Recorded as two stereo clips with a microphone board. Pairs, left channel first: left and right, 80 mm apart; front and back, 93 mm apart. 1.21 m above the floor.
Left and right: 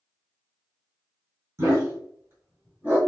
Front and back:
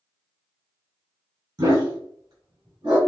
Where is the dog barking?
140° right, 2.5 m; by 3.0 s 155° right, 3 m.